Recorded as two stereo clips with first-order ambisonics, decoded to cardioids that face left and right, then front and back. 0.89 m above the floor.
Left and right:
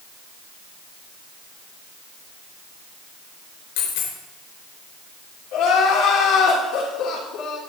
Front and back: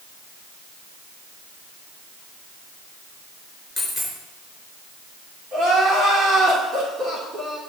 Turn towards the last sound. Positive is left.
turn(degrees=120)